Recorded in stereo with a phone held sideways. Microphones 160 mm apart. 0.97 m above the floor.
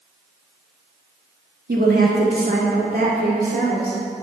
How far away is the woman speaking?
About 1.5 m.